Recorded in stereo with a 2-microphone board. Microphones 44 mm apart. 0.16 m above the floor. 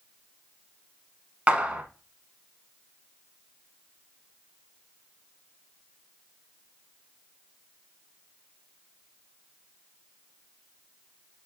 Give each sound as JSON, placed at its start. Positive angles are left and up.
{"t": 1.5, "sound": "a clap", "side_deg": -25, "distance_m": 0.9}